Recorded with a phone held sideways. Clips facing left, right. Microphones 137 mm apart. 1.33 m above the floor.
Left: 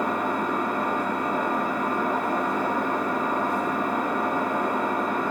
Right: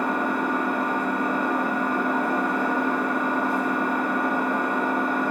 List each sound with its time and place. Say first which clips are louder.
0.0 s an engine running: right 1 dB; 30° right (ahead or behind), 1.0 m